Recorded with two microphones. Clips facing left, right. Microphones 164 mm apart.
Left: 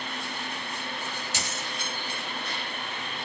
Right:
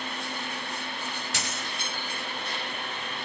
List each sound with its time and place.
1.3 s a dropped coin: 75° right (ahead or behind), 2.0 m